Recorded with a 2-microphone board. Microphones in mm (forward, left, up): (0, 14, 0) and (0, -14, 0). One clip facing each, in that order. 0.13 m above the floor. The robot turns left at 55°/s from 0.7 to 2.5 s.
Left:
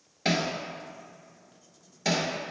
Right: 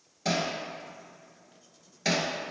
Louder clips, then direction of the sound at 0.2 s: Left 2 dB; 45° left (ahead or behind).